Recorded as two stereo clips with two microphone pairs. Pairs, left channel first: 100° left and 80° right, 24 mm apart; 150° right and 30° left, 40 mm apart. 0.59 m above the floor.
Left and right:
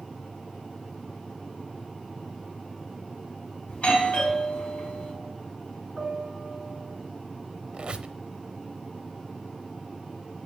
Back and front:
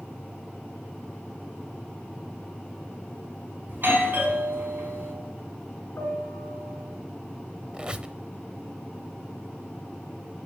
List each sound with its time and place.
3.7 s a doorbell: 65° left, 3.5 m
6.0 s a piano: 150° right, 1.0 m
7.7 s a squeak: 35° right, 0.7 m